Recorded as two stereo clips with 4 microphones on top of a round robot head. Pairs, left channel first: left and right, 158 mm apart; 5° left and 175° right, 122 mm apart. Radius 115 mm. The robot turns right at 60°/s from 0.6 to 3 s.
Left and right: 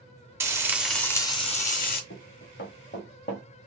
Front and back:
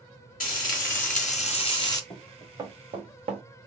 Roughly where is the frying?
Ahead.